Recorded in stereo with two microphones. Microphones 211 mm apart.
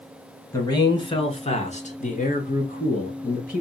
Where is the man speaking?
20° left (ahead or behind), 1.3 m; by 3.6 s 45° left (ahead or behind), 1.7 m.